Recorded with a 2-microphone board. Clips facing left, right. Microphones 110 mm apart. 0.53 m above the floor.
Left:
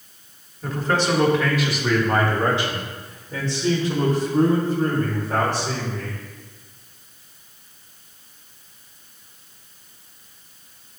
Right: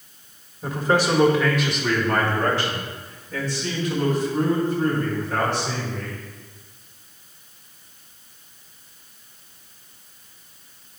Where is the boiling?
No boiling in this recording.